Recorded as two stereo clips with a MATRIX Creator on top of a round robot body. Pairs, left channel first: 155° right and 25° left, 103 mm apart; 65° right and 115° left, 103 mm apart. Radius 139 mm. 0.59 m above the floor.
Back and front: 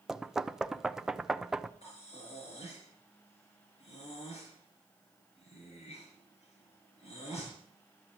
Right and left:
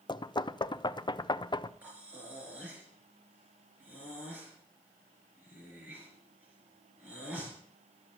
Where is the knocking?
60° right, 0.7 m.